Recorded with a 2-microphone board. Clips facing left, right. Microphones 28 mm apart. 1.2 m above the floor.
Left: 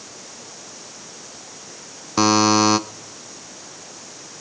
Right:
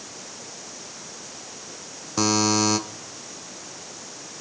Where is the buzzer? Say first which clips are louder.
Left 6 dB; 30° left (ahead or behind), 0.6 m.